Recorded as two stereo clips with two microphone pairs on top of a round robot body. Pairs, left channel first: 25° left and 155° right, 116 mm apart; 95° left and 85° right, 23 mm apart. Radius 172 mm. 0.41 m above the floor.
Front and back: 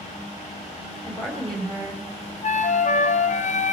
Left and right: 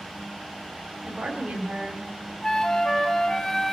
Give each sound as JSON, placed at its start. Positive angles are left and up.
{"t": 1.0, "sound": "a woman speaking", "azimuth_deg": -55, "distance_m": 3.0}
{"t": 2.4, "sound": "a flute", "azimuth_deg": 25, "distance_m": 0.9}